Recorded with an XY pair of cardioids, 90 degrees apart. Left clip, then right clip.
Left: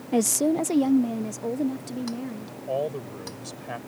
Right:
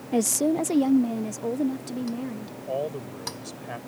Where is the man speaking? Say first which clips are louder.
Left 2 dB; 15° left.